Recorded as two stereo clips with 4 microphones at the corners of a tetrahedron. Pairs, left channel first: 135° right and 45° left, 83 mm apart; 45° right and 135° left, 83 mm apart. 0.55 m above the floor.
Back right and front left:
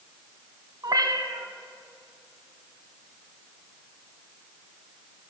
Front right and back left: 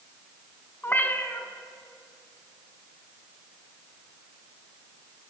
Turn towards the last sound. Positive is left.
turn(degrees=15)